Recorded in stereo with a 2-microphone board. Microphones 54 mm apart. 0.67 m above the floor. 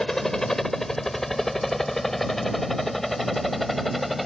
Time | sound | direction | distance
0.0 | a helicopter | 10° left (ahead or behind) | ?